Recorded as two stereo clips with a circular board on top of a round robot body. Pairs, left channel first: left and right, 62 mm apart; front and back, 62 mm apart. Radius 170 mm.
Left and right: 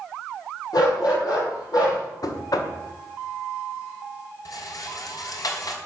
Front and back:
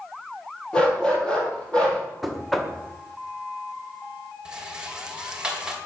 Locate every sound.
0.7 s a dog barking: 75° left, 6 m
2.2 s knocking: 90° left, 2 m
4.5 s a rattle: 105° left, 2.5 m